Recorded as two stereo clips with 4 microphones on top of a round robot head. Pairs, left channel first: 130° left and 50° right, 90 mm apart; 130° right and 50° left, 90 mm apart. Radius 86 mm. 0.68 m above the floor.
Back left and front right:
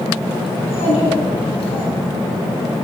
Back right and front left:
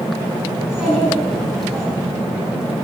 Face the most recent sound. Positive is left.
turn(degrees=140)